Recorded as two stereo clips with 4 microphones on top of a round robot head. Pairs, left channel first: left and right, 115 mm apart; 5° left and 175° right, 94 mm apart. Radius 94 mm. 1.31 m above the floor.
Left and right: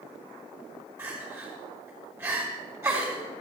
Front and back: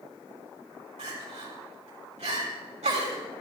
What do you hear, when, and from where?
1.0 s crying: 160° right, 5 m